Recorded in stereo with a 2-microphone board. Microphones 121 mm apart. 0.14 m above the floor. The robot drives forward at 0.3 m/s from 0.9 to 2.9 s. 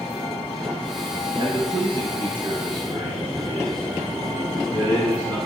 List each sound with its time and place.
1.4 s a man speaking: 45° right (ahead or behind), 2 m; by 5.4 s 40° right (ahead or behind), 2 m